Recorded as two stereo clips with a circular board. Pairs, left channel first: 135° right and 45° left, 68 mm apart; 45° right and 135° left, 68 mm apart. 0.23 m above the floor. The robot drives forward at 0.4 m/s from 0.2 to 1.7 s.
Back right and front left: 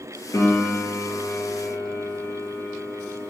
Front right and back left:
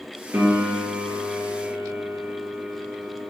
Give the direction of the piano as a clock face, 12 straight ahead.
6 o'clock.